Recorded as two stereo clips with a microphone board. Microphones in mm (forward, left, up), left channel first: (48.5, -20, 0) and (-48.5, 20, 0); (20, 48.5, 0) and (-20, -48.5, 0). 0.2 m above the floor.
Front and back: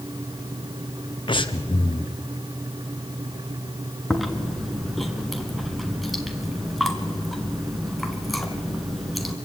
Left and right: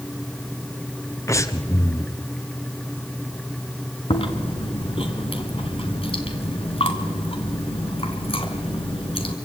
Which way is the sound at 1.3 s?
10° left.